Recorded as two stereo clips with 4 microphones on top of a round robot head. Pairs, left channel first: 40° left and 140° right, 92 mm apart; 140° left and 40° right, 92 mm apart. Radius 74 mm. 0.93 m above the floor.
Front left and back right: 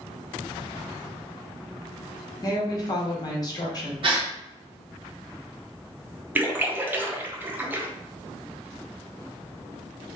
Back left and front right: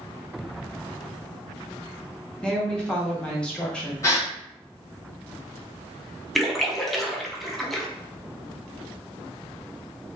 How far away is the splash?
About 0.6 m.